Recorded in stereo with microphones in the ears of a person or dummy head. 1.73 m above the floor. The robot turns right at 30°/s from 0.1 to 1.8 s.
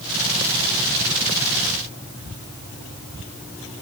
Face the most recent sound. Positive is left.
No sound to turn to.